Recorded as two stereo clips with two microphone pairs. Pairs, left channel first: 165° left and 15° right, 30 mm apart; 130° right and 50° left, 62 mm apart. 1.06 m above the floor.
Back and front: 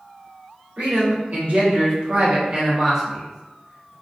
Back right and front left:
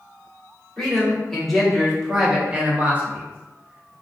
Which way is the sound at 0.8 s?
50° right.